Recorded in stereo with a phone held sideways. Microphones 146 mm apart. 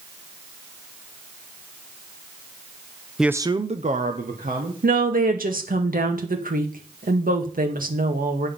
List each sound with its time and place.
3.2 s a man speaking: centre (ahead or behind), 0.5 m; by 4.7 s 75° right (ahead or behind), 1.8 m
4.8 s a woman speaking: 75° right (ahead or behind), 1.7 m